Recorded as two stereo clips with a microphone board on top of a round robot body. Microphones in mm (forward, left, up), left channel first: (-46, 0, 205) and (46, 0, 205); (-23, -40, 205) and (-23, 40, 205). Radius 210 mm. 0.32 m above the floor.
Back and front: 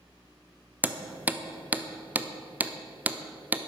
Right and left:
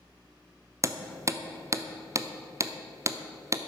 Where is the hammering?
65° left, 1.1 m.